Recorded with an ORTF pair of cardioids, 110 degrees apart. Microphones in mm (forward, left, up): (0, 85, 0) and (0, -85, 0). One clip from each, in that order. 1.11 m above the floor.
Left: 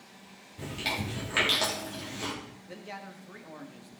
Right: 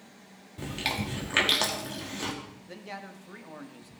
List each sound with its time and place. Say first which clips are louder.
0.6 s chewing: right 1 dB; 30° right, 3 m
2.7 s a man speaking: right 1 dB; 5° right, 1.5 m